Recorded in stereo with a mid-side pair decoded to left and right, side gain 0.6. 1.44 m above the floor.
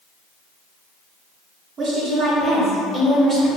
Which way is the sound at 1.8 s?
50° right.